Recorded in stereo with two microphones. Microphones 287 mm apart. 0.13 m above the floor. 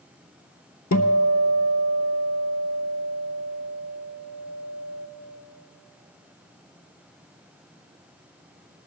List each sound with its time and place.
0.9 s a guitar: 70° left (ahead or behind), 0.6 m